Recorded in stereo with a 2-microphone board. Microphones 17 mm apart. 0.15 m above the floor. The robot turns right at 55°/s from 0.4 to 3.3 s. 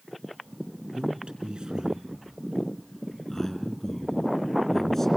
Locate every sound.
0.9 s a man speaking: 60° right (ahead or behind), 3.5 m; by 5.1 s 10° left (ahead or behind), 3.5 m